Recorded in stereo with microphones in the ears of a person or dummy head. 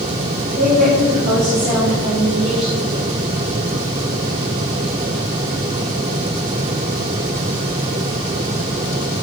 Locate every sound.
0.6 s a woman speaking: 45° right (ahead or behind), 3.5 m; by 2.9 s 65° right (ahead or behind), 4 m